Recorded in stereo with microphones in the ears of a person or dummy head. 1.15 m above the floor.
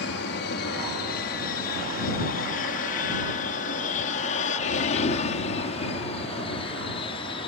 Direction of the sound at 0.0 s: 55° left (ahead or behind).